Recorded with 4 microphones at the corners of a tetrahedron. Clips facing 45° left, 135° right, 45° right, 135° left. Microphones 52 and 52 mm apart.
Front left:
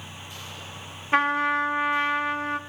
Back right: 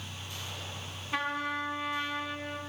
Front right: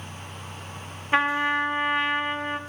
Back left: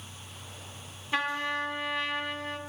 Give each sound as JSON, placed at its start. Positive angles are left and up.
{"t": 1.1, "sound": "a trumpet", "azimuth_deg": 10, "distance_m": 1.0}